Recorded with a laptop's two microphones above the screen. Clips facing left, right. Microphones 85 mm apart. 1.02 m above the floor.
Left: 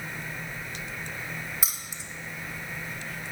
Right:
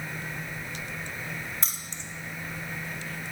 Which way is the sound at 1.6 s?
5° left (ahead or behind).